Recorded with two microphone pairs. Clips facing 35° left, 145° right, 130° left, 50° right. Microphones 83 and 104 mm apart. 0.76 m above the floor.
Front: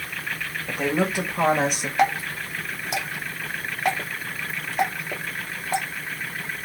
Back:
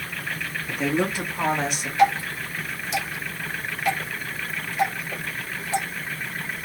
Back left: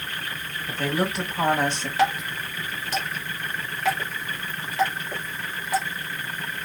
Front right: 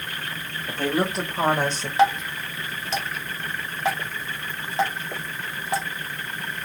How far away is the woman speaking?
About 3 m.